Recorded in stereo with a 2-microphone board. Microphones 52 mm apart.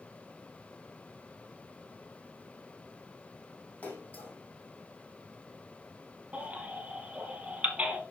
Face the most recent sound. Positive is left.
turn(degrees=-25)  # may be behind; listen again after turning